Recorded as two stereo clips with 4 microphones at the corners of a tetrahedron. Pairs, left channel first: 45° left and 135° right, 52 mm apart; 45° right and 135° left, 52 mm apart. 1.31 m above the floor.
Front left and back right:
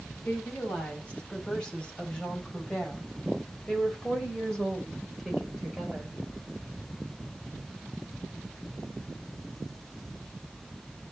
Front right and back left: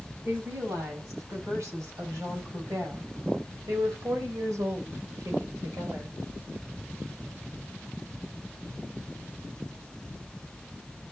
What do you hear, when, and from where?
0.2 s a woman speaking: 110° left, 7 m; by 6.2 s 135° left, 4.5 m